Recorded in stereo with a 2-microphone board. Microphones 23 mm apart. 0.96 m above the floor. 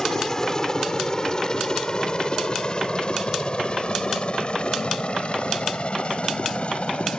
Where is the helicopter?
25° left (ahead or behind); by 7.2 s 55° left (ahead or behind).